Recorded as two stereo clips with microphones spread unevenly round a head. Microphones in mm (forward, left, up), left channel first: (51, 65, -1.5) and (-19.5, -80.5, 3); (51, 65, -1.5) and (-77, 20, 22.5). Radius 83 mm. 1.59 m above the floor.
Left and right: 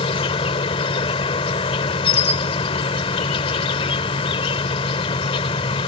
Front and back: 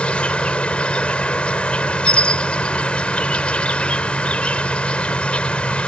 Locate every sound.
0.0 s an insect: 110° left